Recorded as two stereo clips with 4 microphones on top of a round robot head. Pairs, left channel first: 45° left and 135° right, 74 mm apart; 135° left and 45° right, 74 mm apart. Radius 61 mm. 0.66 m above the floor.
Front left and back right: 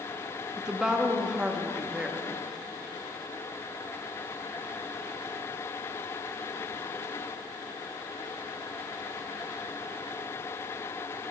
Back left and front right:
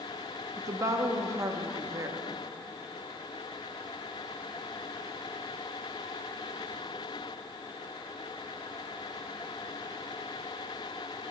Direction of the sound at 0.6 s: 60° right.